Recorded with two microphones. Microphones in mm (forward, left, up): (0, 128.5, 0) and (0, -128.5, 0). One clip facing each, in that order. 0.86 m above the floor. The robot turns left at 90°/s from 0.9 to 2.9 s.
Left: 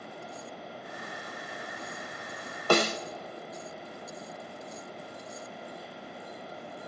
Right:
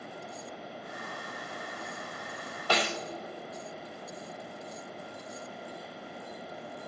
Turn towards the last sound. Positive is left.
turn(degrees=40)  # may be behind; listen again after turning